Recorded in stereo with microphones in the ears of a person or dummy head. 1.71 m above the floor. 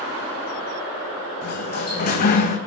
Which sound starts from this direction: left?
A sliding door, at 1.4 s.